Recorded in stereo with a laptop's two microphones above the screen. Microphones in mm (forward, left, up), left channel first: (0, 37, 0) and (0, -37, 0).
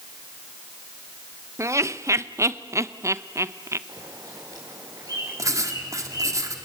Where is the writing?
50° right (ahead or behind), 1.7 m.